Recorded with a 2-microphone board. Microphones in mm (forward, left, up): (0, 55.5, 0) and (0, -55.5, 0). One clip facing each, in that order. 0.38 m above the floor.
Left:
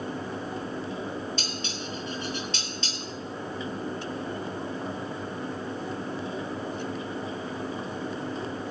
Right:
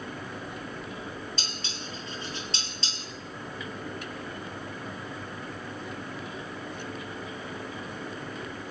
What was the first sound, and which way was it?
Dishes clattering, 35° right (ahead or behind).